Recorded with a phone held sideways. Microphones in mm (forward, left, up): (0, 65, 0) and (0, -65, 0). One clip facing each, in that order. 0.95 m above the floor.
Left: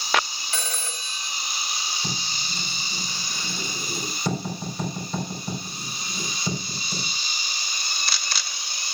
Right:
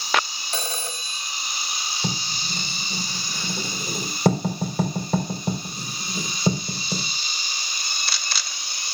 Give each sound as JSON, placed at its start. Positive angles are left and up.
{"t": 0.5, "sound": "a phone ringing", "side_deg": -30, "distance_m": 1.6}
{"t": 2.0, "sound": "writing", "side_deg": -65, "distance_m": 4.5}